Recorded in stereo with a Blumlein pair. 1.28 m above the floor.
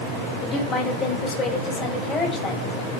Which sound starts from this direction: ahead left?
A woman speaking, at 0.4 s.